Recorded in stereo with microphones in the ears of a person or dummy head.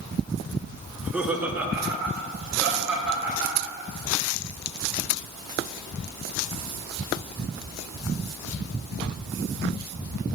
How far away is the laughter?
About 0.9 m.